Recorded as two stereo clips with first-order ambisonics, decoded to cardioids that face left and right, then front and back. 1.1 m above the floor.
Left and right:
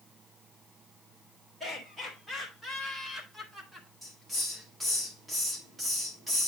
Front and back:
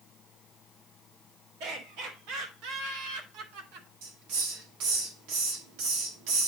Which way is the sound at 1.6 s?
175° right.